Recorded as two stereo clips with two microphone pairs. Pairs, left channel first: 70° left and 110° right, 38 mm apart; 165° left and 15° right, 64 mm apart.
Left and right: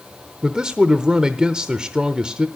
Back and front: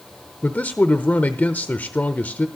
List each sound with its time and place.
0.4 s a man speaking: 155° right, 0.9 m